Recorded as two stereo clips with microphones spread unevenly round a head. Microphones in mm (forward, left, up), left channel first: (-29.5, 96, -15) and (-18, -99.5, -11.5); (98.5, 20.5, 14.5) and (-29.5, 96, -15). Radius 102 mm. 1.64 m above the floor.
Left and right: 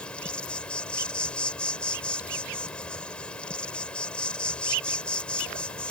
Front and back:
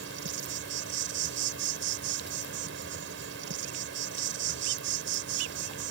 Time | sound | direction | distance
0.0 | an insect | straight behind | ?